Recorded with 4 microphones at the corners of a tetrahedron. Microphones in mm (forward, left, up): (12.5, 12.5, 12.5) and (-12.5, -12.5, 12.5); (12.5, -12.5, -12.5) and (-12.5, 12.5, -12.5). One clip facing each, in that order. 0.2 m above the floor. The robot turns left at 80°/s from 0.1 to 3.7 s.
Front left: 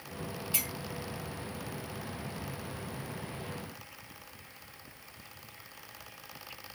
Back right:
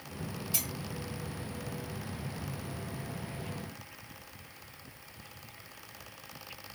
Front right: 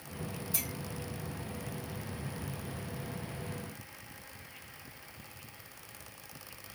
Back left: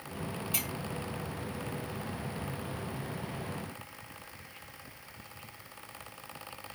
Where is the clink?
105° left, 3.5 m; by 0.7 s 90° left, 3.5 m.